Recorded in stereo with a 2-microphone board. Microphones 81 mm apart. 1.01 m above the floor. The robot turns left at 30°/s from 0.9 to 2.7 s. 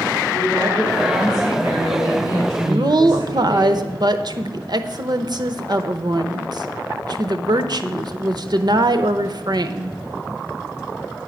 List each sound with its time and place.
0.3 s a woman speaking: 5° left, 1.9 m; by 3.7 s 50° right, 1.9 m
2.7 s a woman speaking: 60° right (ahead or behind), 0.6 m